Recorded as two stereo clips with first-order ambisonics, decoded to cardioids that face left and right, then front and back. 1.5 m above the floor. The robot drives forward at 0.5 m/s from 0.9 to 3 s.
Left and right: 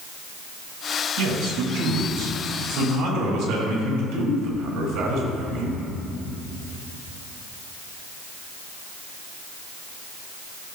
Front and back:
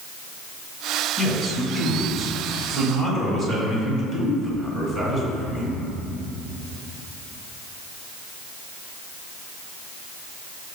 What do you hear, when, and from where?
1.2 s a man speaking: 85° right, 2.0 m; by 5.8 s 110° right, 2 m